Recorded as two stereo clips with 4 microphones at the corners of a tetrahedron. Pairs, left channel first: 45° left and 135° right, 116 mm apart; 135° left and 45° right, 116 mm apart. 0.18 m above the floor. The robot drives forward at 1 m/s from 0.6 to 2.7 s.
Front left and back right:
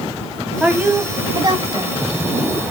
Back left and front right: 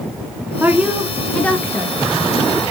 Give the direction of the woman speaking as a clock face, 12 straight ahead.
2 o'clock.